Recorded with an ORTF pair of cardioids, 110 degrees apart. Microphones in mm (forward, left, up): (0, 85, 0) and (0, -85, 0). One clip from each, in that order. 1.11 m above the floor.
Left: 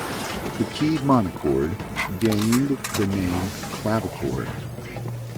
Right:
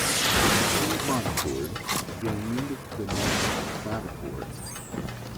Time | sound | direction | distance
0.6 | a man speaking | 55° left | ?